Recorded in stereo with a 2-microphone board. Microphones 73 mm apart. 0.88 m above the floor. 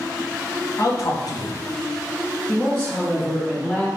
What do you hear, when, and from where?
0.8 s a man speaking: 45° left (ahead or behind), 0.9 m; by 3.9 s centre (ahead or behind), 1.8 m